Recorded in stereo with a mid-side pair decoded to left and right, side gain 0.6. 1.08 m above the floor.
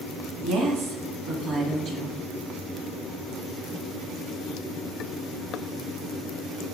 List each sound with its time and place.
0.4 s a woman speaking: 60° right, 1.5 m